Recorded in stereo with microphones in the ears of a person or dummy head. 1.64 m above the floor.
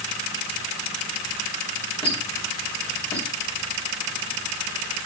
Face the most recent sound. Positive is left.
turn(degrees=30)  # may be behind; listen again after turning